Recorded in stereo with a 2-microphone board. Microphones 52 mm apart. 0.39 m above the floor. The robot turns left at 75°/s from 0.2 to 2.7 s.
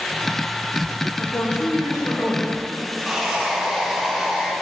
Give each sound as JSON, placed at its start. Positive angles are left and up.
{"t": 1.2, "sound": "a woman speaking", "azimuth_deg": 145, "distance_m": 3.0}
{"t": 3.0, "sound": "sawing", "side_deg": 0, "distance_m": 2.5}